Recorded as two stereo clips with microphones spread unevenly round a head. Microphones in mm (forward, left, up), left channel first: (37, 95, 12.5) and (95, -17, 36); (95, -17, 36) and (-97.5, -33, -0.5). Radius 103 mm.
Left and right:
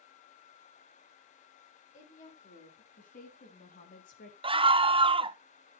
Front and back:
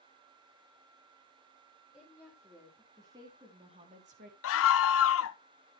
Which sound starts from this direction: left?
A woman speaking, at 1.9 s.